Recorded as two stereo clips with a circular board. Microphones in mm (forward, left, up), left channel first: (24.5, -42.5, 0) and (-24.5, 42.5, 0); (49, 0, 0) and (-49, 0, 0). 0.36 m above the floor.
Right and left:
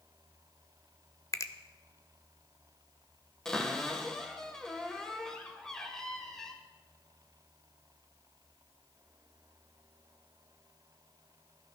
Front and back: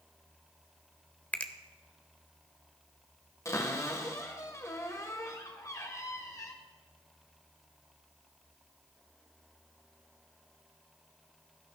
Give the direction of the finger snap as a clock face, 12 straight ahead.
2 o'clock.